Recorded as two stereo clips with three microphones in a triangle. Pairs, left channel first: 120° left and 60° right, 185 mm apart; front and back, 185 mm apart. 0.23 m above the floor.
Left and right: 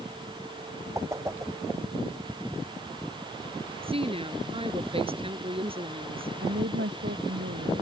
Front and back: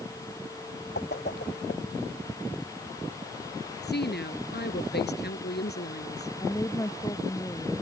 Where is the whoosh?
15° left.